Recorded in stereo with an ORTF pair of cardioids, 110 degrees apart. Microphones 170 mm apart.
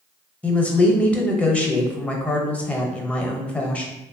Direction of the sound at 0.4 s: 10° left.